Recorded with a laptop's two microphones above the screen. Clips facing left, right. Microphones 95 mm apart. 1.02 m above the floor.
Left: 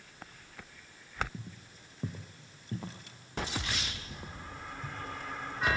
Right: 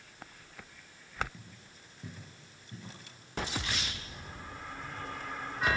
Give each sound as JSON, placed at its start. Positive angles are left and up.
{"t": 1.3, "sound": "footsteps", "side_deg": 40, "distance_m": 1.3}